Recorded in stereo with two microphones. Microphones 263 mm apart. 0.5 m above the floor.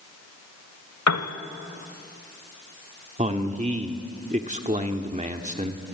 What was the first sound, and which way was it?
A piano, 80° left.